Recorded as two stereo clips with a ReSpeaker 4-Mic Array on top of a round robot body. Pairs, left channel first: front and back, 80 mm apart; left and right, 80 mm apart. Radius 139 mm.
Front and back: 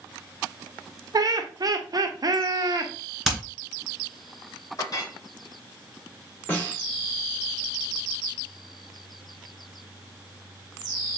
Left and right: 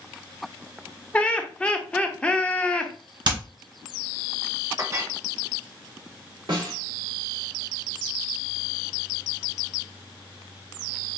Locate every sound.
1.1 s laughter: 160° left, 0.9 m
3.2 s hammering: 90° right, 2 m
4.8 s a clink: 40° right, 1.2 m
6.5 s a snare drum: 65° right, 2 m